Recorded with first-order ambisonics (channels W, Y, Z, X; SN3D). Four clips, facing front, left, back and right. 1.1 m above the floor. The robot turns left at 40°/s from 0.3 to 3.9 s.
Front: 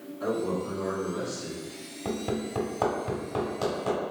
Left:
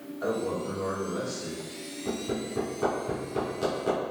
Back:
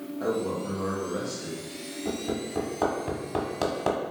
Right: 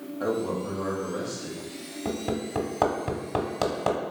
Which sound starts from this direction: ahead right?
Hammering, at 2.0 s.